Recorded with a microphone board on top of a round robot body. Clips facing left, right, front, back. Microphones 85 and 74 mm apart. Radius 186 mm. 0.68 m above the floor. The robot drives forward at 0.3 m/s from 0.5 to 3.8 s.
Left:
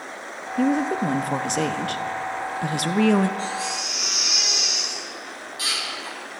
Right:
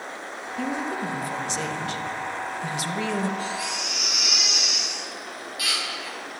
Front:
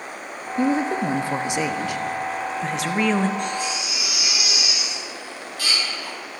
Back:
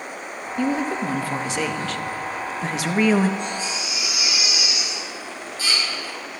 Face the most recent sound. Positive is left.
turn(degrees=30)